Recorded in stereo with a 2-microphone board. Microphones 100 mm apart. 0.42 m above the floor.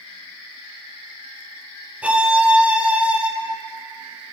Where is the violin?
10° right (ahead or behind), 1.0 m.